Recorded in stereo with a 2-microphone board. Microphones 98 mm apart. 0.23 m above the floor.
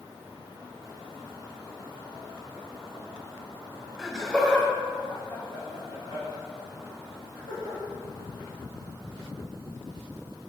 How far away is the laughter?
About 1.6 m.